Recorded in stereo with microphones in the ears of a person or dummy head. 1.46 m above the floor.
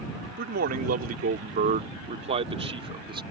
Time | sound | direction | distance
0.4 | a man speaking | 60° right (ahead or behind) | ?